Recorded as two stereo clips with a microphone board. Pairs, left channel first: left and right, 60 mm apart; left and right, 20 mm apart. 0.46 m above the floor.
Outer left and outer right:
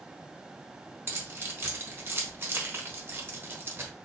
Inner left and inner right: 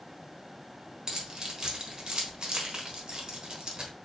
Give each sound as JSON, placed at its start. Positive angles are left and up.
{"t": 1.1, "sound": "keys jangling", "side_deg": -40, "distance_m": 0.9}